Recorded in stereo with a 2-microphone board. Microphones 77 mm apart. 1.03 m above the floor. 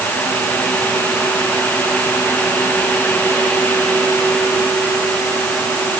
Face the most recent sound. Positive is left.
No sound to turn to.